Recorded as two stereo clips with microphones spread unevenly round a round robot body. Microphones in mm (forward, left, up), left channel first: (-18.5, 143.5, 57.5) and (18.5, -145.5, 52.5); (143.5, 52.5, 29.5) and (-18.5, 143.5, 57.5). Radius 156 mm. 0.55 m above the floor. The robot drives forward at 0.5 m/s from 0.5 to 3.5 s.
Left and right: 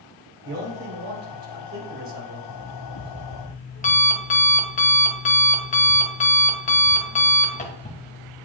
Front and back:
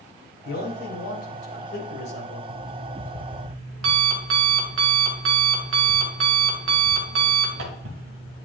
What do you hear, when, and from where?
0.5 s a man speaking: 30° right, 3.5 m; by 2.4 s 45° right, 3 m
2.5 s an alarm clock: 155° left, 0.9 m; by 8.5 s 165° left, 1.4 m